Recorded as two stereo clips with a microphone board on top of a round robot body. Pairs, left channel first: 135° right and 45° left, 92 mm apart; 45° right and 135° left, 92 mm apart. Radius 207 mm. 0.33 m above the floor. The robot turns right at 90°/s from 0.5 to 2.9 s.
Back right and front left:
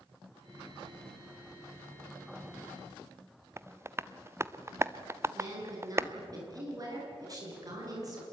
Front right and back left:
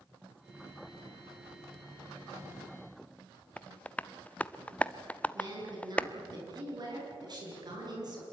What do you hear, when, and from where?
3.6 s tapping: 15° left, 1.0 m
5.3 s a woman speaking: 95° left, 8.5 m